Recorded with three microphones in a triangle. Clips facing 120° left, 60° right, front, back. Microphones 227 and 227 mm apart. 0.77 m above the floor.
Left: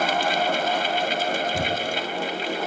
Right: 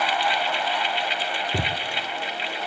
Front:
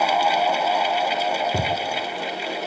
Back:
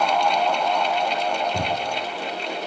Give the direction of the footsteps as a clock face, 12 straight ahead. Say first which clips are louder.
Left 2 dB, front 1 dB; 1 o'clock.